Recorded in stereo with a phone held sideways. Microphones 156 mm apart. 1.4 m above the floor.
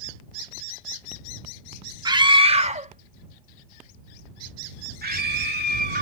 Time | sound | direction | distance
2.0 | a scream | 25° right (ahead or behind) | ?